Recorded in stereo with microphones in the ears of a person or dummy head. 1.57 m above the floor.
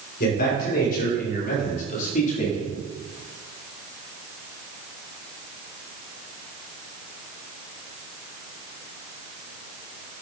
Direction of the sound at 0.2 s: 55° left (ahead or behind).